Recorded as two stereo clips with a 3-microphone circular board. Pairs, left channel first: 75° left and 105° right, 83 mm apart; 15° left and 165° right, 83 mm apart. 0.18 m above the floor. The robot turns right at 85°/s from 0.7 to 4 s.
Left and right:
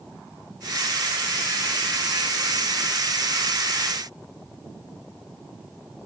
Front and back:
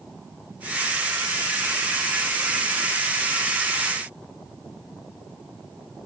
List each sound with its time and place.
Only background noise.